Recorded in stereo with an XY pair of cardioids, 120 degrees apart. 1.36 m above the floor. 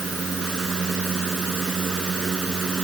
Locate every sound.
0.0 s a fan: 30° right